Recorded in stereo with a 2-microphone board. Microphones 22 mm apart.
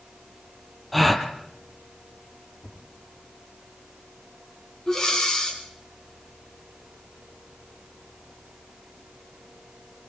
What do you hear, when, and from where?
0.9 s a gasp: 5° left (ahead or behind), 2.5 m
2.6 s a thud: 85° left, 6.5 m
4.9 s breathing: 25° left (ahead or behind), 6.5 m